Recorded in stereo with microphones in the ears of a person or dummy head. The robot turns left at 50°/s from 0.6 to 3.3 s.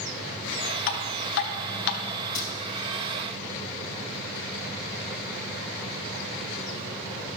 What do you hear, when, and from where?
0.9 s dripping: 50° left (ahead or behind), 0.8 m; by 2.0 s 55° left (ahead or behind), 0.8 m
2.4 s breaking glass: 60° left (ahead or behind), 2.5 m